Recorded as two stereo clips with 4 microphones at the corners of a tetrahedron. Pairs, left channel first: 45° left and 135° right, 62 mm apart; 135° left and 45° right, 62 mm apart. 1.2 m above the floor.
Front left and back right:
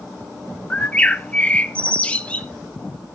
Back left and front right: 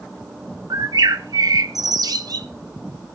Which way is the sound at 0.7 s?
25° right.